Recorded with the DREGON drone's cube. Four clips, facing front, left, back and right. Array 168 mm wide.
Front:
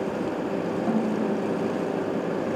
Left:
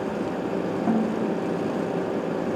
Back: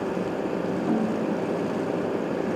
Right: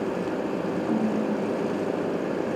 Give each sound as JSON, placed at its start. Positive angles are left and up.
{"t": 0.9, "sound": "a snare drum", "azimuth_deg": 60, "distance_m": 1.8}